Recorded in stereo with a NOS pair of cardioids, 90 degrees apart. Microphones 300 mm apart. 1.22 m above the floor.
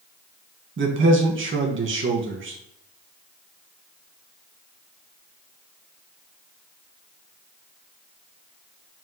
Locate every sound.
0.8 s a man speaking: 40° right, 1.3 m